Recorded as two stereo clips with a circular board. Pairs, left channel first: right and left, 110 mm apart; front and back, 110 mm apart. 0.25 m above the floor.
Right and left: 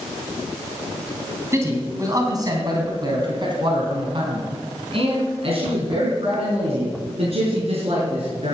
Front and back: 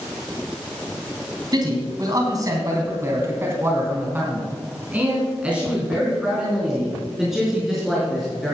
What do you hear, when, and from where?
1.5 s a man speaking: 145° left, 2.5 m; by 8.6 s 90° left, 5 m